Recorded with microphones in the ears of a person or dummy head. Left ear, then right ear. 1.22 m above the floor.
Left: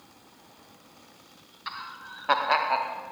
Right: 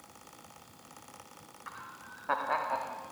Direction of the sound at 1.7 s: 75° left (ahead or behind).